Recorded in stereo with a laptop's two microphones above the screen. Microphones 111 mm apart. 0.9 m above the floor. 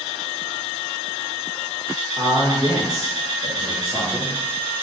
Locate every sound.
2.2 s a man speaking: 40° right (ahead or behind), 1.1 m; by 4.3 s 5° left (ahead or behind), 1.2 m